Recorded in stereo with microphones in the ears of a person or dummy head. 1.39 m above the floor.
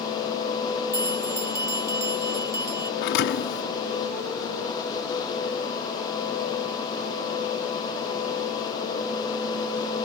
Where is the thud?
60° left (ahead or behind).